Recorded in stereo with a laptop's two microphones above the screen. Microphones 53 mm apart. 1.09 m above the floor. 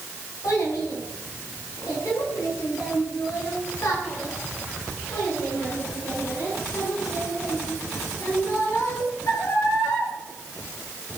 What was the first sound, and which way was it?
A child speaking, 80° left.